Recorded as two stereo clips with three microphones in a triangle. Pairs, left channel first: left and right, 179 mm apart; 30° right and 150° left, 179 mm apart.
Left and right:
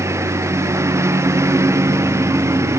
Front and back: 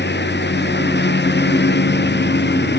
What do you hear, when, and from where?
0.0 s a lawn mower: 15° right